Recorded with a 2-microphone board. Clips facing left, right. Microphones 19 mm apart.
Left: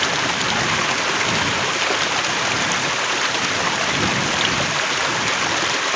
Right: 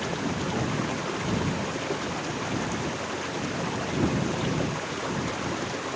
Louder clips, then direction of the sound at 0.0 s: Left 10 dB; 70° left (ahead or behind).